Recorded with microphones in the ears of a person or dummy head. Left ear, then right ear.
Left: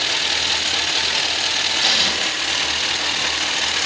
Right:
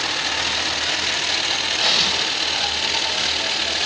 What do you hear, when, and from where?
1.8 s an explosion: 35° right (ahead or behind), 6 m